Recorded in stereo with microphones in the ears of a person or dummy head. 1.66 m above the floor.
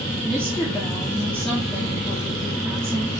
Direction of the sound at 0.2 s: 5° left (ahead or behind).